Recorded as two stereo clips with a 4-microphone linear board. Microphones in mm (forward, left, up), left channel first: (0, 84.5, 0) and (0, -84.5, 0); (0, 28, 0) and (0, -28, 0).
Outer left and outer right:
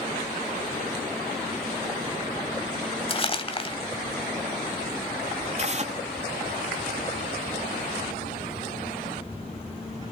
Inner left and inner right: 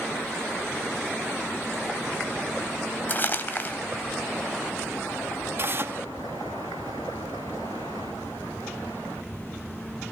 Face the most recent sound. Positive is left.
turn(degrees=-45)  # may be behind; listen again after turning